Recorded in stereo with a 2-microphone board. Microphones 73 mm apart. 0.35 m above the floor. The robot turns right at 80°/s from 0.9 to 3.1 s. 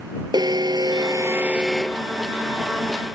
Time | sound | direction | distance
0.3 | an alarm | 70° right | ?